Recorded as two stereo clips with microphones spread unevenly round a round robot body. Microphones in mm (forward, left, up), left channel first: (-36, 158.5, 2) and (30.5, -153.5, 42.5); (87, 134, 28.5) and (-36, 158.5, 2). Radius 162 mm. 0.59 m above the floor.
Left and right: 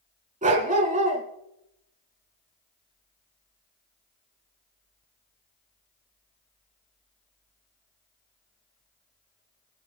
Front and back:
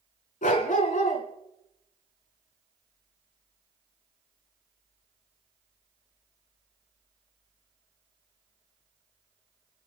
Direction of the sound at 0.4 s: 10° right.